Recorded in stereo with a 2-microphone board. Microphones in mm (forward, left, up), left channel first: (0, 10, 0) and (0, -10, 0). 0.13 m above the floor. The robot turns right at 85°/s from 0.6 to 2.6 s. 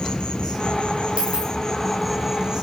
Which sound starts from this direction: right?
A dropped coin, at 1.2 s.